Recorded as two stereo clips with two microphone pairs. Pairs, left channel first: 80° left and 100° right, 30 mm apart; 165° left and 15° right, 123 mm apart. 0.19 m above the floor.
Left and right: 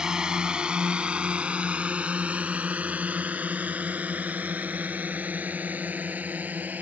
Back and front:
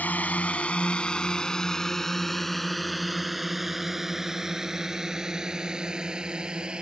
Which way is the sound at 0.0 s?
130° right.